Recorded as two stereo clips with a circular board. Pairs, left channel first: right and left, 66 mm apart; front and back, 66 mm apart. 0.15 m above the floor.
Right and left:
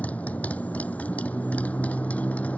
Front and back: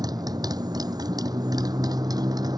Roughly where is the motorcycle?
Behind.